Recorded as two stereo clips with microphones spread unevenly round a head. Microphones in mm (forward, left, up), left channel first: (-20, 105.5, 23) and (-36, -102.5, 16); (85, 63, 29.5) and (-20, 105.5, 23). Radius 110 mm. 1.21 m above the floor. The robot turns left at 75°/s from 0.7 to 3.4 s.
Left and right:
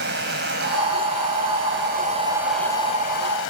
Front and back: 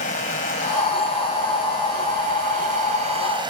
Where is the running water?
50° right; by 3.5 s 110° left.